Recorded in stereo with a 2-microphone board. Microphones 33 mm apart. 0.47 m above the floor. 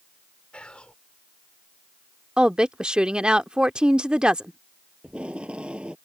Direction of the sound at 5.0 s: 35° right (ahead or behind).